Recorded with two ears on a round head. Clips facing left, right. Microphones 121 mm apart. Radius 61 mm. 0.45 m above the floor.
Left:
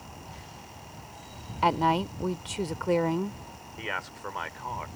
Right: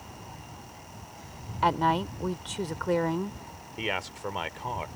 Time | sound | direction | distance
1.6 | a woman speaking | 10° left (ahead or behind) | ?
3.8 | a man speaking | 25° right (ahead or behind) | ?